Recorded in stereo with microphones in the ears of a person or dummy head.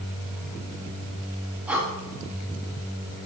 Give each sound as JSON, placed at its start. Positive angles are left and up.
{"t": 1.7, "sound": "breathing", "side_deg": -5, "distance_m": 1.2}